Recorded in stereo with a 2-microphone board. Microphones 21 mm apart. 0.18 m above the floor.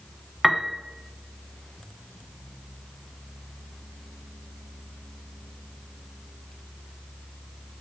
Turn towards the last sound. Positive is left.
turn(degrees=-15)  # may be behind; listen again after turning